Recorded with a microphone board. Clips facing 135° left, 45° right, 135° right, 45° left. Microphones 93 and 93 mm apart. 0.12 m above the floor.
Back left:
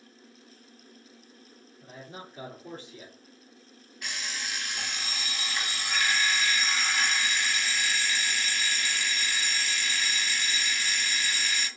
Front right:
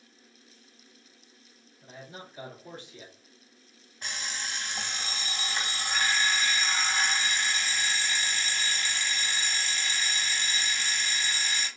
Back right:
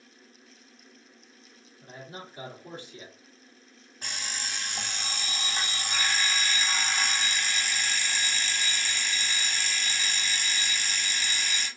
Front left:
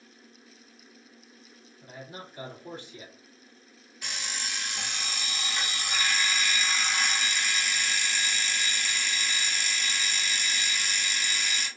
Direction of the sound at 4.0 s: 100° right.